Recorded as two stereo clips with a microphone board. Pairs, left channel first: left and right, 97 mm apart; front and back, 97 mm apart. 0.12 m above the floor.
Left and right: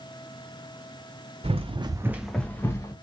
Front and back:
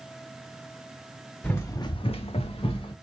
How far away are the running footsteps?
About 0.7 m.